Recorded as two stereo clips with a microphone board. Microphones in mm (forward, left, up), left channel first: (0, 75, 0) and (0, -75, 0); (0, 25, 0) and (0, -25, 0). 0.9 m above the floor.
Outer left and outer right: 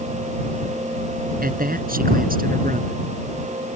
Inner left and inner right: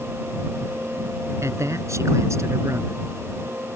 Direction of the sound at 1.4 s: 75° right (ahead or behind).